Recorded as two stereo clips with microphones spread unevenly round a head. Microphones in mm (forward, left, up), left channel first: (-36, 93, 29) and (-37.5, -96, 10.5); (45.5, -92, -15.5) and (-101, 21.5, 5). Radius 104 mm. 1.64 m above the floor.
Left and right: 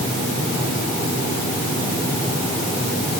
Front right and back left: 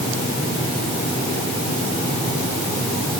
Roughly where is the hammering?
I don't hear hammering.